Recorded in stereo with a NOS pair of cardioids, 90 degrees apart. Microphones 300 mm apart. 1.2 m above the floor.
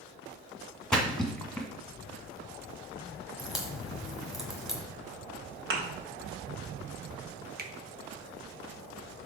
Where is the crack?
Straight ahead, 1.5 m.